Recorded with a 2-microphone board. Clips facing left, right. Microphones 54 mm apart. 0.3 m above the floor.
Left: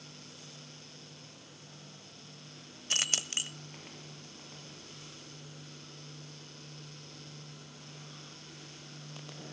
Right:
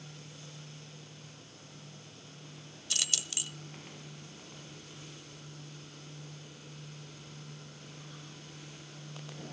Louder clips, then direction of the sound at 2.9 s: Left 4 dB; 35° left (ahead or behind).